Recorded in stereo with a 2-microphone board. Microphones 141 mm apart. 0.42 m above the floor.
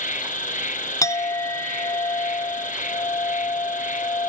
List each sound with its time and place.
0.0 s an insect: 70° left (ahead or behind), 1.2 m
1.0 s a clink: 25° left (ahead or behind), 0.5 m